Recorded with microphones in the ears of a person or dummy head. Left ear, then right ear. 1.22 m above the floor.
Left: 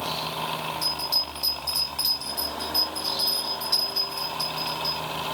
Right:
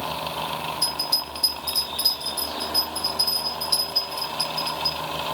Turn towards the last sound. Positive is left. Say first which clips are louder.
# right 1 dB
turn(degrees=10)  # may be behind; listen again after turning